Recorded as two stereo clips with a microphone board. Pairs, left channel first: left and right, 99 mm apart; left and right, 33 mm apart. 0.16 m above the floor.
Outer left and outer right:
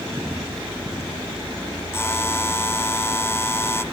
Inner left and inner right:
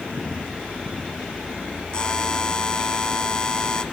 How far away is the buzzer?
About 1.0 m.